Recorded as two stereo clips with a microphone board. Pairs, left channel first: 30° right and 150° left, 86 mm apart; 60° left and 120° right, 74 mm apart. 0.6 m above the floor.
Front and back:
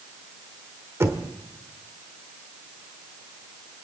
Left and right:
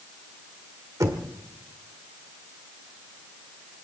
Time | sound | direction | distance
1.0 | knocking | 155° right | 1.6 m